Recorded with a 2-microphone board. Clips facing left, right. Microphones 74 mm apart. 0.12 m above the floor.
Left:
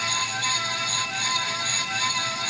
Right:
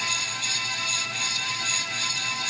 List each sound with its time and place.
Only background noise.